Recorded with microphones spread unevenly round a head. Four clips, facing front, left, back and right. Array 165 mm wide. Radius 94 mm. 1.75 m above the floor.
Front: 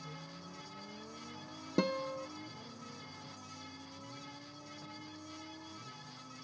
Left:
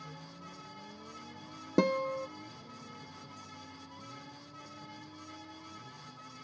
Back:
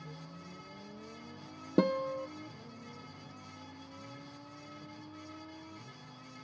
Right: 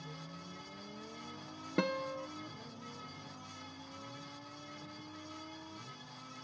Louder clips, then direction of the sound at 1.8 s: Left 6 dB, back 5 dB; 140° left.